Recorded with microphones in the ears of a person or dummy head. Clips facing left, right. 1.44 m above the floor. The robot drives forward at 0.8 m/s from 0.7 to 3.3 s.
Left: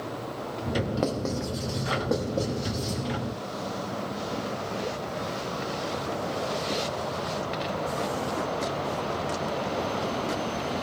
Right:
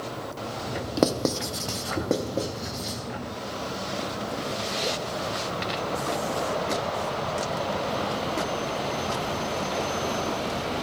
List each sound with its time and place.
1.0 s writing: 65° right (ahead or behind), 0.6 m; by 3.0 s 25° right (ahead or behind), 1.5 m